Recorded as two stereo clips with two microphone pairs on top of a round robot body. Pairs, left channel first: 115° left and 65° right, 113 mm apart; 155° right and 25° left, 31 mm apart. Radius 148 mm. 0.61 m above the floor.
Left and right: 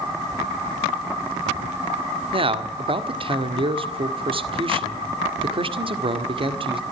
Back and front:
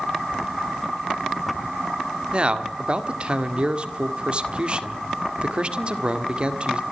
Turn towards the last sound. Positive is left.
turn(degrees=-25)